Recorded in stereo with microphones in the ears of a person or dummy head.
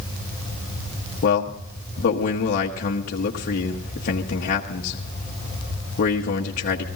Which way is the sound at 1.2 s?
45° left (ahead or behind).